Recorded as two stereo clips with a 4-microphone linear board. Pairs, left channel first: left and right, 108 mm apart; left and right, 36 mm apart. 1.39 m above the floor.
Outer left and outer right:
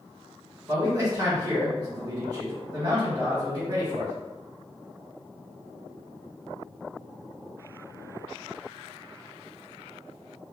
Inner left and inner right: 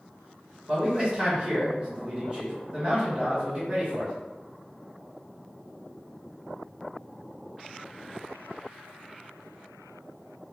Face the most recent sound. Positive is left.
turn(degrees=-35)  # may be behind; listen again after turning